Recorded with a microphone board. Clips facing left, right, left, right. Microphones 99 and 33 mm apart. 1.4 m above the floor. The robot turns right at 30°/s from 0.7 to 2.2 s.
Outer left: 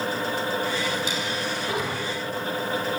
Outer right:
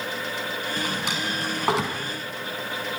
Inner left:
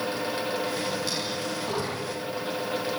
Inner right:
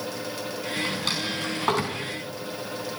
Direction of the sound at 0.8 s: 50° right (ahead or behind).